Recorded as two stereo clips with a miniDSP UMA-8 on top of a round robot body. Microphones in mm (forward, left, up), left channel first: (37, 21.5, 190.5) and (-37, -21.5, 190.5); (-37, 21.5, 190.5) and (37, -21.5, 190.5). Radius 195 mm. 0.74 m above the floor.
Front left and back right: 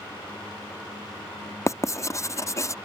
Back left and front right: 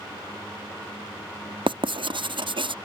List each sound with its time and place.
1.7 s writing: 20° right